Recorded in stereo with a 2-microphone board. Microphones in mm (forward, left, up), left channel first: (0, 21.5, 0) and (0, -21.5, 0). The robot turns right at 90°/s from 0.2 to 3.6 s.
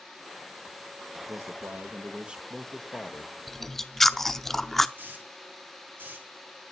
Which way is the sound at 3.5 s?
Centre (ahead or behind).